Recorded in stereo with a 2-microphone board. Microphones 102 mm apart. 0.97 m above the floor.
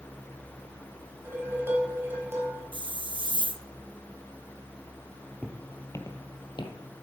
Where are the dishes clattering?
20° right (ahead or behind), 3.5 m.